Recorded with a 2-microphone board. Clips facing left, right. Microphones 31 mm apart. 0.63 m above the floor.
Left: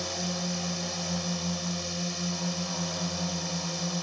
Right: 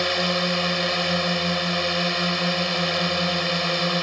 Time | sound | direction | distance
0.0 | a drone | 65° right (ahead or behind) | ?